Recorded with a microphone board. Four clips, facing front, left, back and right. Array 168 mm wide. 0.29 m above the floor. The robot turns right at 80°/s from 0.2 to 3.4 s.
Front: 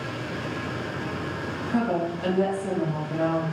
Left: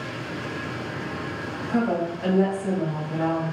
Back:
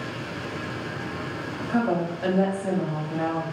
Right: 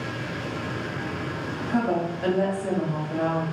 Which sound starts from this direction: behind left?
A woman speaking, at 1.7 s.